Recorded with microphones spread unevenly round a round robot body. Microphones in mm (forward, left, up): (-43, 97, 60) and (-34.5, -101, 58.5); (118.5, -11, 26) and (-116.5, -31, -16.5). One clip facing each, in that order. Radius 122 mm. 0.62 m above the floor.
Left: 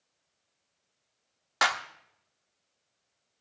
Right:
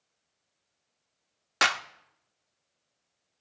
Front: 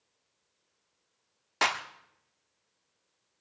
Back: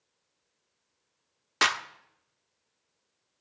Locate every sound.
1.6 s a clap: 130° right, 1.0 m